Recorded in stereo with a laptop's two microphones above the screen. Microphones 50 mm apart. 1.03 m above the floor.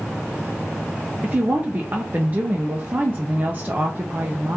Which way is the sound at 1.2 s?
30° right (ahead or behind).